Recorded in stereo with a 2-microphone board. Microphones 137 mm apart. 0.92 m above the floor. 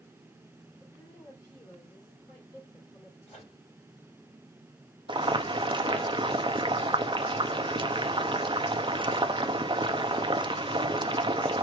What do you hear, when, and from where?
0.8 s a woman speaking: 35° left (ahead or behind), 3 m
3.3 s a microwave: 45° left (ahead or behind), 3 m
5.1 s boiling: 35° right (ahead or behind), 0.5 m